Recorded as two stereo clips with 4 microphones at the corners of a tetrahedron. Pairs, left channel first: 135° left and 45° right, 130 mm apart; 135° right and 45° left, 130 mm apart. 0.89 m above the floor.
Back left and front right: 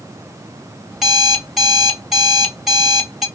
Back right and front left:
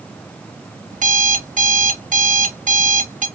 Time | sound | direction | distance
0.9 | an alarm clock | 45° left | 0.6 m